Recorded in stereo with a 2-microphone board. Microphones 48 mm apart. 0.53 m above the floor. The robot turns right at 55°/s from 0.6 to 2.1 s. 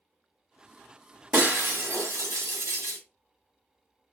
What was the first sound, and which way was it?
Breaking glass, 145° right.